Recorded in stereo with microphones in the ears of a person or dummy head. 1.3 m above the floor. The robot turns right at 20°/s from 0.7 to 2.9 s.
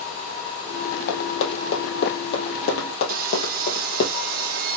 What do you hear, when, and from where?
1.1 s running footsteps: 60° left (ahead or behind), 2.5 m; by 4.1 s 55° left (ahead or behind), 2.5 m
3.1 s sawing: 50° right (ahead or behind), 1.0 m